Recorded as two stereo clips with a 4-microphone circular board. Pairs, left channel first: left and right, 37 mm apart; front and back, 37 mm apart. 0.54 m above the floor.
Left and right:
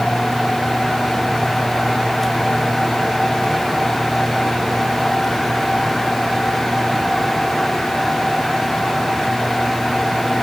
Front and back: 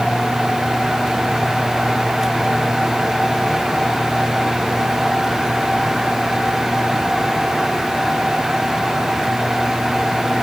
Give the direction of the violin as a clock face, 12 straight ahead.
I don't hear a violin.